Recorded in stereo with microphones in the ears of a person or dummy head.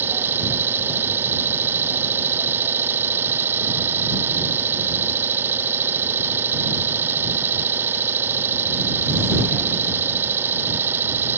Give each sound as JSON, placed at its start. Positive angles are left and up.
{"t": 0.0, "sound": "an engine running", "side_deg": -10}